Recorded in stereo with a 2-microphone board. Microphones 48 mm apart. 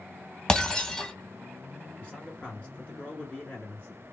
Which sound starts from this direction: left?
A man speaking, at 2.0 s.